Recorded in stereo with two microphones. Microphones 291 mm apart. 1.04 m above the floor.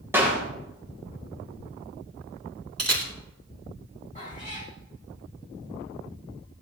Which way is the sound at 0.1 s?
5° right (ahead or behind).